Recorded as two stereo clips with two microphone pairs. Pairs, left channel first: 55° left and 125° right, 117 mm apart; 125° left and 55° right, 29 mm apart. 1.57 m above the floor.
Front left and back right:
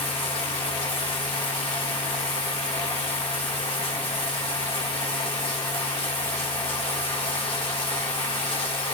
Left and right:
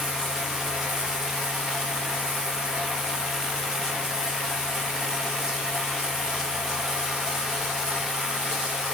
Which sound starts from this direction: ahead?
Running water, at 0.0 s.